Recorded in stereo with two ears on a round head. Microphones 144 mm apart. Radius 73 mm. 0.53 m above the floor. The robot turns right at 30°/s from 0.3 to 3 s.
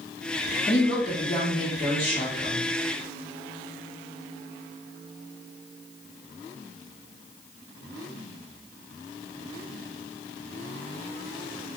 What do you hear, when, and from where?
0.7 s a woman speaking: 65° left, 1.0 m; by 2.7 s 125° left, 1.0 m